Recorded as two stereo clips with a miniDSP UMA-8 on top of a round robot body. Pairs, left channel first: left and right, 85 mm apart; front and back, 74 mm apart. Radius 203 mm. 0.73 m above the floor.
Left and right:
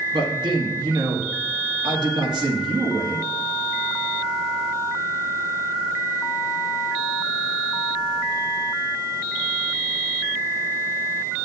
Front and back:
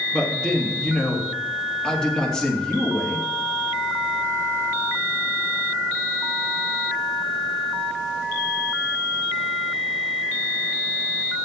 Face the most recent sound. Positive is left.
turn(degrees=-80)